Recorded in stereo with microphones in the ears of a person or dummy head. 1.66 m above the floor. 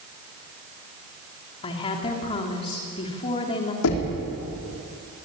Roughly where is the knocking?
Left.